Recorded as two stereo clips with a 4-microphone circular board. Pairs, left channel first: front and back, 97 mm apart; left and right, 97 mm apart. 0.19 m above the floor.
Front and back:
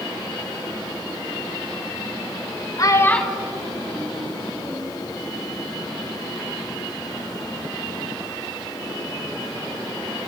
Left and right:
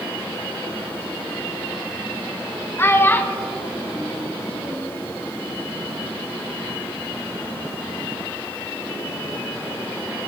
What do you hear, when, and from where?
2.8 s a child speaking: 35° left, 0.9 m; by 5.0 s 165° right, 2 m